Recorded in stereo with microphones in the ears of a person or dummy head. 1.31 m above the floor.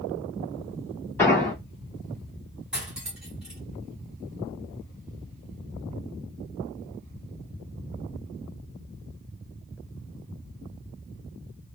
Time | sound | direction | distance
1.2 | an explosion | 10° left (ahead or behind) | 2 m
2.7 | cutlery clinking | 5° right (ahead or behind) | 1.9 m